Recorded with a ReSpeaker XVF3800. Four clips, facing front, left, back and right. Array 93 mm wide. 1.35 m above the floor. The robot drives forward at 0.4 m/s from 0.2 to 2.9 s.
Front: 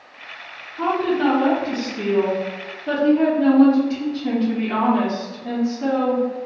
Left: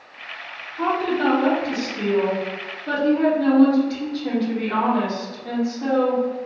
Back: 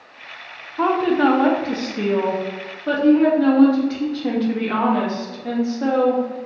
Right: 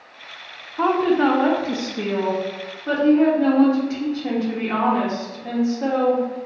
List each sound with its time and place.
0.8 s a woman speaking: 140° right, 0.7 m; by 6.5 s 165° right, 1.4 m